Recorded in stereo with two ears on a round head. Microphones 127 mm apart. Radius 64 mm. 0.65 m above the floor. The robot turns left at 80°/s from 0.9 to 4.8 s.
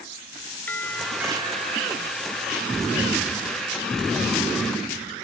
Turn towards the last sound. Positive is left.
turn(degrees=60)